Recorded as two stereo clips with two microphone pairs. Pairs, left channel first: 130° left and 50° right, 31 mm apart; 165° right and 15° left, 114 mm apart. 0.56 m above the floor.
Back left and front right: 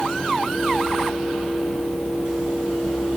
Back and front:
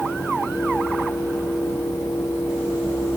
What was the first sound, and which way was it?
Only background noise.